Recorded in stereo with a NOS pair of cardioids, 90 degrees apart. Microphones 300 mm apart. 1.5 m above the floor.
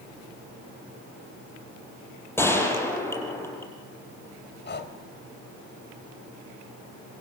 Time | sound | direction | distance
2.4 | a gunshot | 10° left | 7 m
4.7 | breathing | 35° left | 3.5 m